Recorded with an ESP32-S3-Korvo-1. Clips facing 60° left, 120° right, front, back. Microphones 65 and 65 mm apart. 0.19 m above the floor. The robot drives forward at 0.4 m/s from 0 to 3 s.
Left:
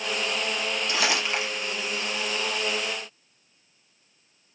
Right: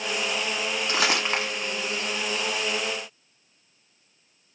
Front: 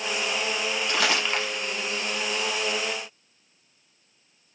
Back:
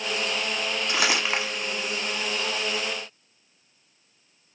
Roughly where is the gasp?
I don't hear a gasp.